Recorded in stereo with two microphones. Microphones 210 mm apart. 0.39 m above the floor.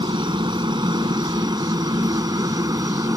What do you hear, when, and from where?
0.0 s a helicopter: 20° right (ahead or behind); by 3.2 s 15° right (ahead or behind)